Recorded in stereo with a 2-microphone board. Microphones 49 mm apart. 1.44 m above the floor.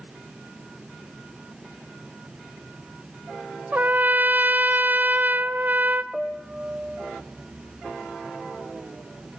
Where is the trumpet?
35° right (ahead or behind), 0.7 m.